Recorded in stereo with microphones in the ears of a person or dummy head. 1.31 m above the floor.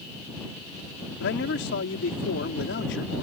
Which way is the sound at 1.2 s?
65° left (ahead or behind).